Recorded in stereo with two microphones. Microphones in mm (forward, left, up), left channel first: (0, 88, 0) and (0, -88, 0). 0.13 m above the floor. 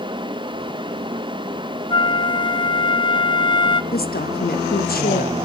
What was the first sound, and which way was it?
A flute, 25° left (ahead or behind).